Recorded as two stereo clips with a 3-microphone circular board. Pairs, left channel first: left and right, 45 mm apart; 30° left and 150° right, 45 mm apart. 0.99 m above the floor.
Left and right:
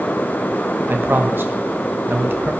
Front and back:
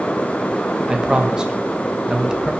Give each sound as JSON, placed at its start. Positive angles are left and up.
{"t": 0.9, "sound": "a man speaking", "azimuth_deg": -80, "distance_m": 1.1}